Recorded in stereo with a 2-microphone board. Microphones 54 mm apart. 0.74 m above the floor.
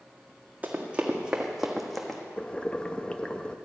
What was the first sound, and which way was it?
Running footsteps, 30° right (ahead or behind).